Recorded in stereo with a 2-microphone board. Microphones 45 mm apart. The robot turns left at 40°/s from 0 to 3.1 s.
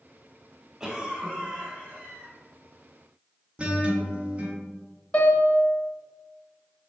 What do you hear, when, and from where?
0.8 s a cough: 15° right, 1.2 m; by 2.3 s 75° right, 1.2 m
3.6 s a guitar: 25° right (ahead or behind), 0.6 m
5.1 s a piano: 30° left (ahead or behind), 0.8 m